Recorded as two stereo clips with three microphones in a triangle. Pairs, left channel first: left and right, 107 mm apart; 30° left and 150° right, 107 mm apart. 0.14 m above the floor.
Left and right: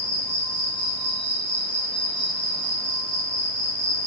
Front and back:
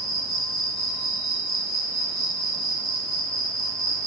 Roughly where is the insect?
Behind.